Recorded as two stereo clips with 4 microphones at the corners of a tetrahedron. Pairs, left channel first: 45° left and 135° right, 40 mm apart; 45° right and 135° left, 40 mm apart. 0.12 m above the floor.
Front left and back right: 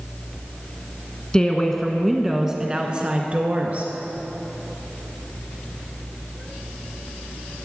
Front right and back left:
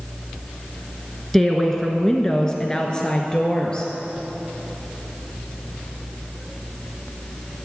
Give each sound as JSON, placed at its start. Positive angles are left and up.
{"t": 1.3, "sound": "a woman speaking", "azimuth_deg": 25, "distance_m": 1.1}